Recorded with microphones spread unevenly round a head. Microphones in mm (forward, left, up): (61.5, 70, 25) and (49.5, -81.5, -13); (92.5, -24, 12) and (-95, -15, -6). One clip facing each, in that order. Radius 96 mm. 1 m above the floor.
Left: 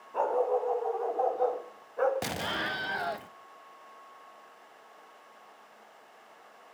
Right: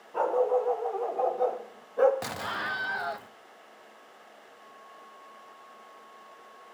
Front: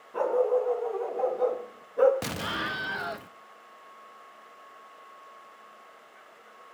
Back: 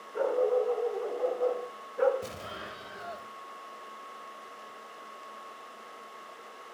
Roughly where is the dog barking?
Ahead.